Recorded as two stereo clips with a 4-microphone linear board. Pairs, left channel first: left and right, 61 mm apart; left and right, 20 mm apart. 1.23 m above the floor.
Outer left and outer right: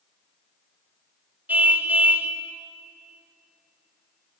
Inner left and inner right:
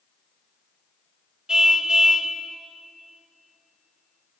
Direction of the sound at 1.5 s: 30° right (ahead or behind).